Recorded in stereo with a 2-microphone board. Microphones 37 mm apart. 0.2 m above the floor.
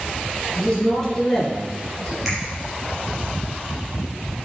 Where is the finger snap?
5° right (ahead or behind), 3 m.